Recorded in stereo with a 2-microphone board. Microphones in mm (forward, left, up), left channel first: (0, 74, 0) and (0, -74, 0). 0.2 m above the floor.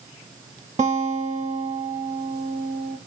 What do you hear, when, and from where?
0.8 s a guitar: 50° right (ahead or behind), 0.9 m